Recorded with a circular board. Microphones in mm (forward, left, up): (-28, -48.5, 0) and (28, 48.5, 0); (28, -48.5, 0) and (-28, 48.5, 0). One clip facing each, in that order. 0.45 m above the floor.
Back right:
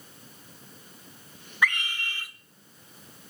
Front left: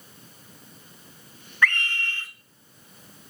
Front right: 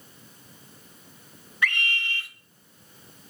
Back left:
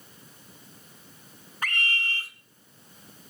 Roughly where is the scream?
Behind.